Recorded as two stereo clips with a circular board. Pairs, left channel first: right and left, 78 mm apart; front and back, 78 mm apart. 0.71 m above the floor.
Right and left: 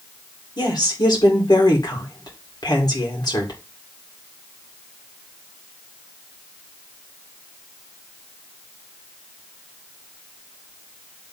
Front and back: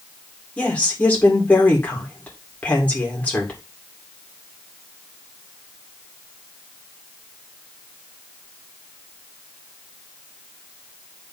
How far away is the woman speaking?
About 2.5 m.